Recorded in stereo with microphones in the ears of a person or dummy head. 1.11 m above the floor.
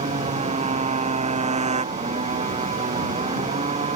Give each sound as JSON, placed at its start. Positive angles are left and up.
{"t": 0.0, "sound": "a motorcycle", "side_deg": -35}